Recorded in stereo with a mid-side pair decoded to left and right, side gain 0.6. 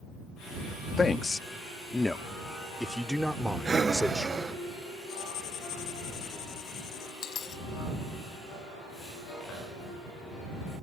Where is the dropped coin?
45° left.